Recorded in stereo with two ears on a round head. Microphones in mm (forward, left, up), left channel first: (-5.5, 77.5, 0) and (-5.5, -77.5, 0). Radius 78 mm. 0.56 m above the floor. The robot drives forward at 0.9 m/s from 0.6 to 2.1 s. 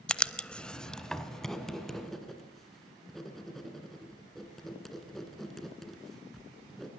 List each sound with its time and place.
0.1 s writing: 5° left (ahead or behind), 0.7 m; by 6.9 s centre (ahead or behind), 2 m